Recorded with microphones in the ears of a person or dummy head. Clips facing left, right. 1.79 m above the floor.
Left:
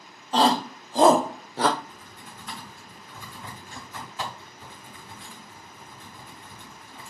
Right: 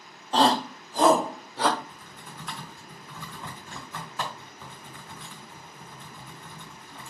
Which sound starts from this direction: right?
Typing on a keyboard, at 1.8 s.